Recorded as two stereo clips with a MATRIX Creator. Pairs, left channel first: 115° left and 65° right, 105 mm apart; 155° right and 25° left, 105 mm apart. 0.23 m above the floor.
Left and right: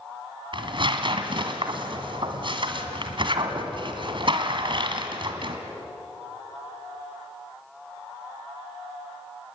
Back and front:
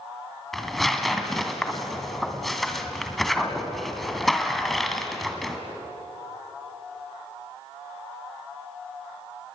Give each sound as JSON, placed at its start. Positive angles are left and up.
{"t": 0.5, "sound": "tearing paper", "azimuth_deg": -70, "distance_m": 2.0}